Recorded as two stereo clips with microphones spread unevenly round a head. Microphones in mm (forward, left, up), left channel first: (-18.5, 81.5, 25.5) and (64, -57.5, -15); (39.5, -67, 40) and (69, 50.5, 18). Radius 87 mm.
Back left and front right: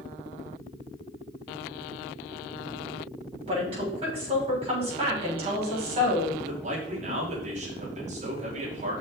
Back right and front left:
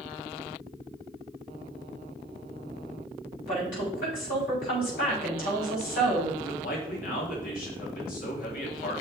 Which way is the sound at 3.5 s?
120° right.